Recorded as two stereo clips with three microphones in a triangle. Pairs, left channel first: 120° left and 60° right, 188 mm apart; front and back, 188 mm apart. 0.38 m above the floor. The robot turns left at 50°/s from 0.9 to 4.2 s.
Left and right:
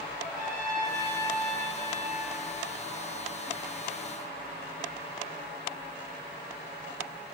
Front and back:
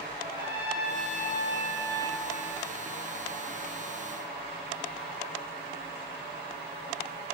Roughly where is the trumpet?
Right.